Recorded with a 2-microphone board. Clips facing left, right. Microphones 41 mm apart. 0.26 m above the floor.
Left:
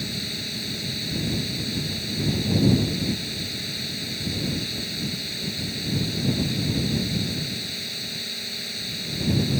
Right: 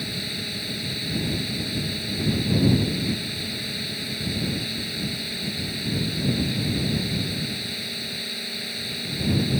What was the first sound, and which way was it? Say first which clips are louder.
A drone: right 1 dB; 10° right (ahead or behind).